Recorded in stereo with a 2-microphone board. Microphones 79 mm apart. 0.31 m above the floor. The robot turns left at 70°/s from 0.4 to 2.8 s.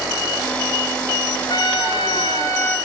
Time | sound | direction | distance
1.5 | a trumpet | 115° left | 2 m